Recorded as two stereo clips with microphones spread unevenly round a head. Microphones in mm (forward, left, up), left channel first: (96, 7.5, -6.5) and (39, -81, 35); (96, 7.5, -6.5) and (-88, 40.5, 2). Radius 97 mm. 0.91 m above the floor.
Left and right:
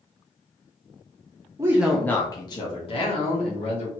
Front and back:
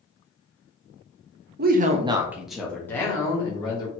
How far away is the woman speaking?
About 0.6 m.